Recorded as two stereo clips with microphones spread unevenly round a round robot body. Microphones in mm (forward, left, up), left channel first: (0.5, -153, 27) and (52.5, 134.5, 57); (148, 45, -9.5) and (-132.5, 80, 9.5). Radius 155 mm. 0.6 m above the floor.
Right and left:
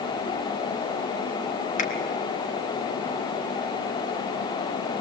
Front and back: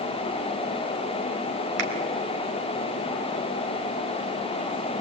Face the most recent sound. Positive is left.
turn(degrees=-165)